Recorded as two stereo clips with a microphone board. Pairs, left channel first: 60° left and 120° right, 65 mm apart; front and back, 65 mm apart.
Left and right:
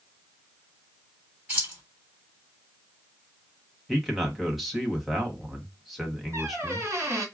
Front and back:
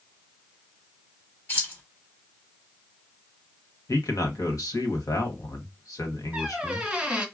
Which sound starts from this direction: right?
A squeak, at 6.3 s.